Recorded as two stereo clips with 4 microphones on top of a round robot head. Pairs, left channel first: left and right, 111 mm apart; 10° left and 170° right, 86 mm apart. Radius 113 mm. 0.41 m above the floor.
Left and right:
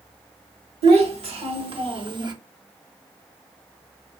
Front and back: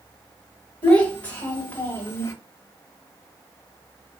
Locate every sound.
0.8 s a child speaking: 65° right, 1.4 m; by 2.3 s 45° right, 0.7 m